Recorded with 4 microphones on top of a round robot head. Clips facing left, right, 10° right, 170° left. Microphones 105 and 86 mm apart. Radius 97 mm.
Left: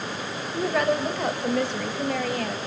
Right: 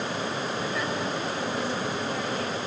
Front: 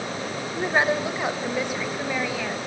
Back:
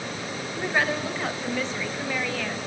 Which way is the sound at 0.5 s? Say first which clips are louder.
Left 6 dB, front 3 dB; 55° left.